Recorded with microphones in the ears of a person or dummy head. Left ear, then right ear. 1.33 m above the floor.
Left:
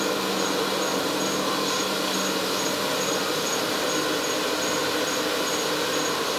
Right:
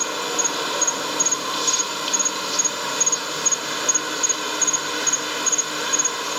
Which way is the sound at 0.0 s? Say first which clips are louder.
Right 1 dB; 40° right (ahead or behind).